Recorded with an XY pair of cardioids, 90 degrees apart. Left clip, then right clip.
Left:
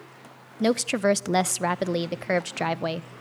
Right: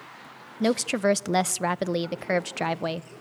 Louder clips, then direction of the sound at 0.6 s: Left 1 dB; 5° left.